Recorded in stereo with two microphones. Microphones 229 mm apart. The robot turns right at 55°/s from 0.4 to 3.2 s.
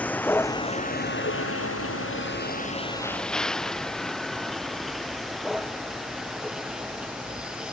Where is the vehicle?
5° left (ahead or behind); by 7.7 s 5° right (ahead or behind).